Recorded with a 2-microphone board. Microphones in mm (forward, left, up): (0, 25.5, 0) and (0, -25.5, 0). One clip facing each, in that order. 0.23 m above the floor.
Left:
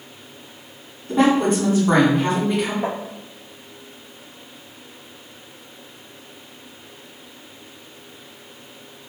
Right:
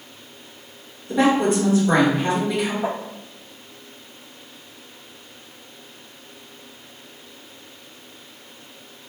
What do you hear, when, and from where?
1.1 s a woman speaking: 35° left (ahead or behind), 1.8 m
2.8 s tapping: 45° left (ahead or behind), 1.0 m